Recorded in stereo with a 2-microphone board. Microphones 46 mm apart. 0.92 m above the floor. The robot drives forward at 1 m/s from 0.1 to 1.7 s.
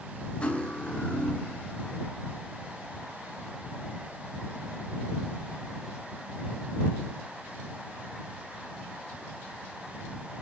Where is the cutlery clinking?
25° left (ahead or behind), 2.5 m; by 1.6 s 45° left (ahead or behind), 1.6 m.